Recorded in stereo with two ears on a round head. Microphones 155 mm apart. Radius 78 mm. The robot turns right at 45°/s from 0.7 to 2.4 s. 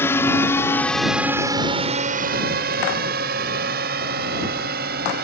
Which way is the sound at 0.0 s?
15° left (ahead or behind).